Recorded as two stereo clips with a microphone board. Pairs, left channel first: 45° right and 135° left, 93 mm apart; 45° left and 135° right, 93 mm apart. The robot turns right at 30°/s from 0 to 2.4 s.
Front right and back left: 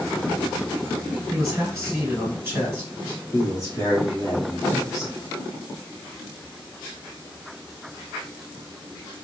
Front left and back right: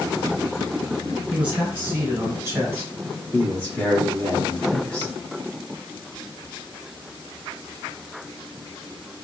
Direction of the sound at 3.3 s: 20° right.